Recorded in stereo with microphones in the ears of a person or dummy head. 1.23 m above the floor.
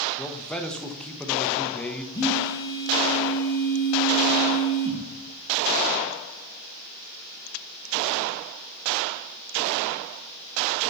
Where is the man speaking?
10° left (ahead or behind), 0.8 m.